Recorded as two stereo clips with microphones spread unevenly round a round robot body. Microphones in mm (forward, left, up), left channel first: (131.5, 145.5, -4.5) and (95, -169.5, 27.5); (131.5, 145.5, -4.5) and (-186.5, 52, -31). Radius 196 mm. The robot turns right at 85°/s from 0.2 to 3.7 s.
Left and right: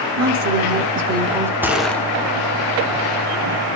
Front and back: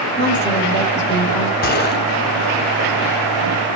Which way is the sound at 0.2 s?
120° right.